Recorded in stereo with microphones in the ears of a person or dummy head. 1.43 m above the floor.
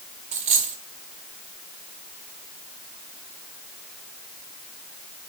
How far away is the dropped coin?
About 1.9 m.